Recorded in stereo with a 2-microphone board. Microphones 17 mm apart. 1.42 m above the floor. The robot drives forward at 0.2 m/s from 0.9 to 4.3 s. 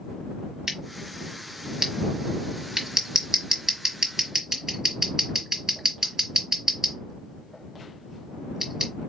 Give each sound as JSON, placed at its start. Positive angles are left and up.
{"t": 0.7, "sound": "scissors", "side_deg": -30, "distance_m": 1.4}